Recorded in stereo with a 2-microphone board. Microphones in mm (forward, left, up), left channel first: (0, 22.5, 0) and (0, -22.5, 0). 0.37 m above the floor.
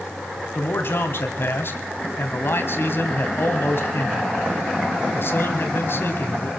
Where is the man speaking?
55° left (ahead or behind), 3 m.